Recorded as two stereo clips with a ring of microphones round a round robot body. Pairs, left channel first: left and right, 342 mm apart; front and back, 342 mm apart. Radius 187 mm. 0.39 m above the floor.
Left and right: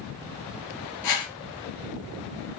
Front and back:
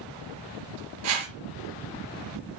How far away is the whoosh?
About 3 m.